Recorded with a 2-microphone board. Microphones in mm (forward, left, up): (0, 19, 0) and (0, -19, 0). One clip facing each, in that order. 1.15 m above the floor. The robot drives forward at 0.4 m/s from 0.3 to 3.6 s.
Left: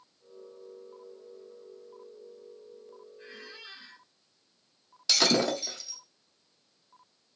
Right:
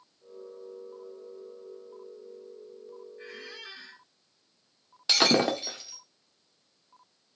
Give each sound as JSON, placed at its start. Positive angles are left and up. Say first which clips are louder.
{"t": 3.2, "sound": "a squeak", "louder": "right 2 dB", "side_deg": -65, "distance_m": 2.0}
{"t": 5.1, "sound": "breaking glass", "louder": "right 2 dB", "side_deg": -30, "distance_m": 0.8}